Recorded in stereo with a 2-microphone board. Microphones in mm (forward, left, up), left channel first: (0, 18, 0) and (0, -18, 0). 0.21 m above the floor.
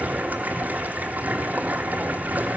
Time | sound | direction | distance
0.0 | running water | 50° right (ahead or behind) | 1.2 m